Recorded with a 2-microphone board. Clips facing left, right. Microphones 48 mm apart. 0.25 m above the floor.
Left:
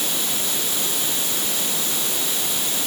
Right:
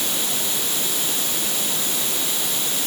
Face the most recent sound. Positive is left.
No sound to turn to.